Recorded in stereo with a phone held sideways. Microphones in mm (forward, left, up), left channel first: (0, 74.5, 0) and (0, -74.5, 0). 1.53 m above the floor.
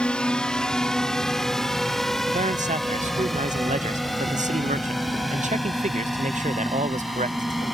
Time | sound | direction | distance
0.0 | a drone | 5° left (ahead or behind) | ?
2.3 | a man speaking | 55° right (ahead or behind) | ?